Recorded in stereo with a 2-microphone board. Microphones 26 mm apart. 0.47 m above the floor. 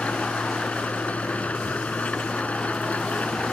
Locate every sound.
0.0 s an engine running: 70° left (ahead or behind)